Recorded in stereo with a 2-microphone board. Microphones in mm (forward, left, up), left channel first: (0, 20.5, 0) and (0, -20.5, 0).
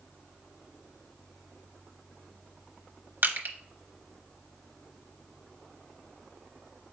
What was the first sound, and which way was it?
Crushing, 60° right (ahead or behind).